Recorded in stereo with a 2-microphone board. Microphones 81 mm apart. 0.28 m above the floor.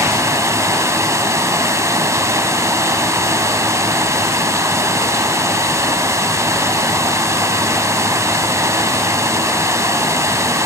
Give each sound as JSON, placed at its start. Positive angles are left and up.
{"t": 0.0, "sound": "running water", "side_deg": -35, "distance_m": 1.1}